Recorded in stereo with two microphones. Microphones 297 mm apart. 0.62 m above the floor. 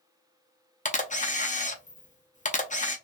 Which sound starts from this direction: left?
A camera shutter, at 0.8 s.